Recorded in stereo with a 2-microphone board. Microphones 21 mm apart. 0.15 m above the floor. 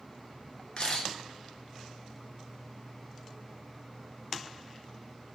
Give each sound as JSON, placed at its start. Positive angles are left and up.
{"t": 0.8, "sound": "a camera shutter", "side_deg": 50, "distance_m": 0.5}